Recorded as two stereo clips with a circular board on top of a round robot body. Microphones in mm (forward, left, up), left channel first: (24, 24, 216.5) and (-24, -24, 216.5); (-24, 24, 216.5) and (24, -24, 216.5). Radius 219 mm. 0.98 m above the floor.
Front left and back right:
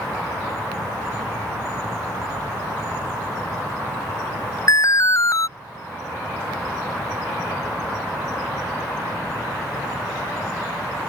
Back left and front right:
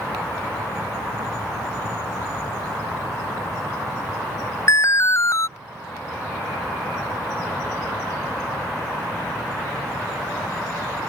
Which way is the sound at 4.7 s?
90° left.